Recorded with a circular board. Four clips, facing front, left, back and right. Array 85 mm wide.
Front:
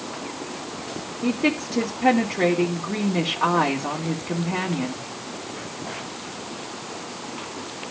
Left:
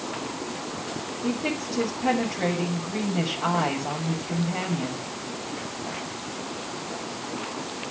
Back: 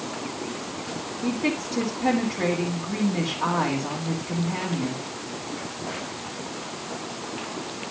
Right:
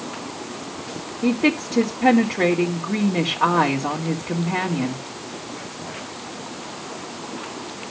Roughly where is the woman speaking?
Ahead right.